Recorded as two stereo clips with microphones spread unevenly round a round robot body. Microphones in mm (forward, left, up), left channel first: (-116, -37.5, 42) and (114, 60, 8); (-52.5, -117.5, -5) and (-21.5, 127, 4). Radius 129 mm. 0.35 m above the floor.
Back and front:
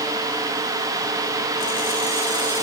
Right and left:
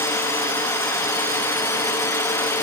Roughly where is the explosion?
No explosion in this recording.